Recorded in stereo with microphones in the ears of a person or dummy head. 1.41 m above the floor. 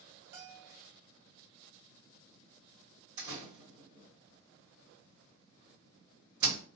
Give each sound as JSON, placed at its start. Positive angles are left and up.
{"t": 0.3, "sound": "a bell", "side_deg": -60, "distance_m": 0.9}
{"t": 3.2, "sound": "a door slam", "side_deg": -75, "distance_m": 1.6}